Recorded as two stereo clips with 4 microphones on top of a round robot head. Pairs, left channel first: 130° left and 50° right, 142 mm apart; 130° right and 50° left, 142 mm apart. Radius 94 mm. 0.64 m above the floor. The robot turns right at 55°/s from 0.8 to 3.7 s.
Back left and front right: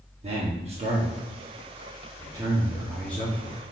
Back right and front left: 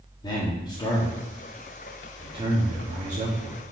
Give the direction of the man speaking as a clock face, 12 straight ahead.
3 o'clock.